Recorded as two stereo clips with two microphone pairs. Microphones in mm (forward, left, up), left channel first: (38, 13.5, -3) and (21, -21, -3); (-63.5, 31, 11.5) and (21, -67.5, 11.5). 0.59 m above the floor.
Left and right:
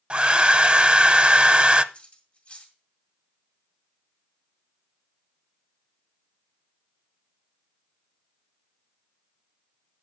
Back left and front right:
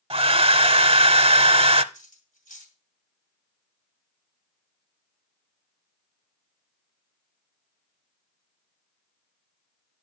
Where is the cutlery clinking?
120° left, 2.5 m.